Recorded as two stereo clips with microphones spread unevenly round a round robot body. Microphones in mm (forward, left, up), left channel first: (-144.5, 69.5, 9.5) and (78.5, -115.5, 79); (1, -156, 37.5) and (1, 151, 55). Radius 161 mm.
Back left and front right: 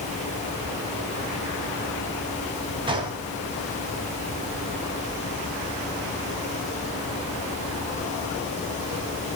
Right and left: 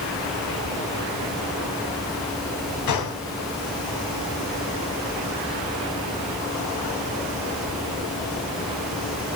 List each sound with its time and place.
2.9 s a gunshot: 115° right, 3 m